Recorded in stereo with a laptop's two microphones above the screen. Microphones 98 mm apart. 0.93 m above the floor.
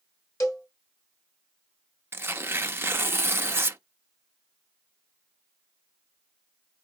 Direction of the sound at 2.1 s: 25° right (ahead or behind).